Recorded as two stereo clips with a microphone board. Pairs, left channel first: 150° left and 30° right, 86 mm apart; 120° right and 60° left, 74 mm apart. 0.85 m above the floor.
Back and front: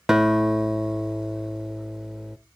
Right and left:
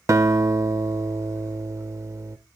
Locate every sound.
0.1 s a guitar: 50° left, 0.6 m